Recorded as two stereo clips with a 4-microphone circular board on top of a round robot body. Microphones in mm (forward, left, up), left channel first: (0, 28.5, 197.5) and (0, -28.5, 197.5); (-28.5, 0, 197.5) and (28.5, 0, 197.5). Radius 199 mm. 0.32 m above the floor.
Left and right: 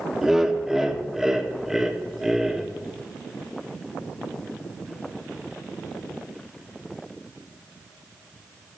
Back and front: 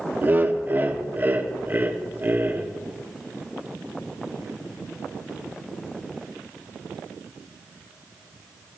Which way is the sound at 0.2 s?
15° right.